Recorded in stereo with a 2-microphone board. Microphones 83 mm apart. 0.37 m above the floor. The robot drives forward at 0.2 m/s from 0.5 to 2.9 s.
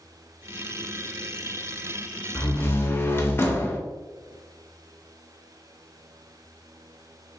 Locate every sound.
2.4 s a door slam: 30° left (ahead or behind), 0.5 m